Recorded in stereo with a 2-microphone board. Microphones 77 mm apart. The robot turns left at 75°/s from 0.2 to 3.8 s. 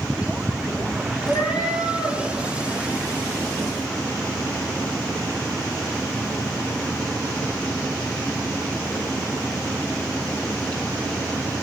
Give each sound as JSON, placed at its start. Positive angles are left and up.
{"t": 1.3, "sound": "a cat meowing", "azimuth_deg": 105, "distance_m": 1.5}